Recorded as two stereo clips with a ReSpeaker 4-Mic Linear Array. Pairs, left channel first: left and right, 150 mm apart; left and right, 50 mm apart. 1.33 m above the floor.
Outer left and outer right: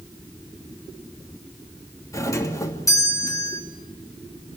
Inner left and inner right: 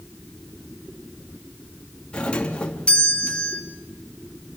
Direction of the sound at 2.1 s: 20° left (ahead or behind).